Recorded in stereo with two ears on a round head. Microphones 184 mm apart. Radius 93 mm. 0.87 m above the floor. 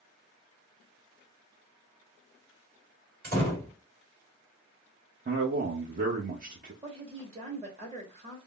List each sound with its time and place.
3.2 s a door slam: 55° right (ahead or behind), 2.5 m
5.2 s a man speaking: 40° right (ahead or behind), 0.9 m
6.8 s a woman speaking: 30° right (ahead or behind), 1.8 m